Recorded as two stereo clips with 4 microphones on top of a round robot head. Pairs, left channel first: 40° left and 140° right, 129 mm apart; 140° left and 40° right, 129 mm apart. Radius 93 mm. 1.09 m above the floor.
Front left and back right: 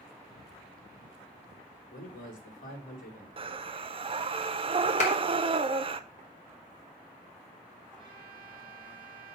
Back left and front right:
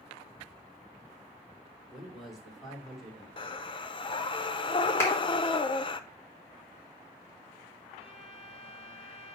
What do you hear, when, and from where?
1.9 s a man speaking: 50° left, 2.5 m
3.4 s breathing: 175° right, 0.7 m
5.0 s a clap: 70° left, 3 m
8.0 s a violin: straight behind, 1.1 m